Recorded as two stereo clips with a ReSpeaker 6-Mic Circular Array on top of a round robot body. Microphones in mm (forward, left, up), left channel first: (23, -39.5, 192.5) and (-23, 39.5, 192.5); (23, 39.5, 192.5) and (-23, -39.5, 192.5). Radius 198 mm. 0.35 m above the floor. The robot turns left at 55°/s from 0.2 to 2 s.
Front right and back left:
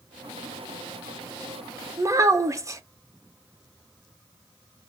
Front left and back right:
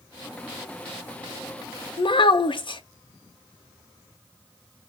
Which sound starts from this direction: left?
A child speaking, at 2.0 s.